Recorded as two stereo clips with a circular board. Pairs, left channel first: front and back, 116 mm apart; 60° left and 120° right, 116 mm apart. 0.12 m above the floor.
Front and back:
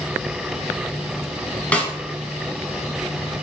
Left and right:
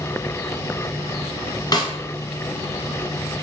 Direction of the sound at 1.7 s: 70° left.